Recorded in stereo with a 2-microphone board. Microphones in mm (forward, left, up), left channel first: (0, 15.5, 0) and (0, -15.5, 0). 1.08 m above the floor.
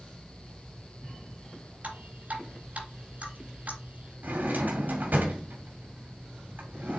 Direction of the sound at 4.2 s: 80° right.